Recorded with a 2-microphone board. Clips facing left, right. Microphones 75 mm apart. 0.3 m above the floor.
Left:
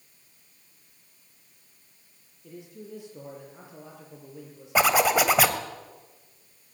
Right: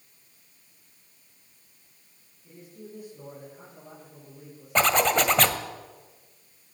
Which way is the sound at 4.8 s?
10° left (ahead or behind).